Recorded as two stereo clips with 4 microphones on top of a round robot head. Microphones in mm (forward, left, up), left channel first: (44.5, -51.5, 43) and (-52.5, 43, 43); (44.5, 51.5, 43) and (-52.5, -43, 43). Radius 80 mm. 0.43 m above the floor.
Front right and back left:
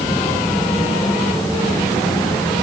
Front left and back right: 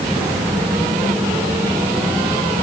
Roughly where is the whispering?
I don't hear whispering.